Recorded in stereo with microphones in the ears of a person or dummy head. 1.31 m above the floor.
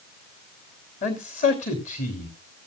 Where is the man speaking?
35° left (ahead or behind), 3 m.